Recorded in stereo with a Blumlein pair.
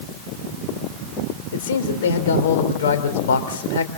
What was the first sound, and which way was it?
A man speaking, 60° left.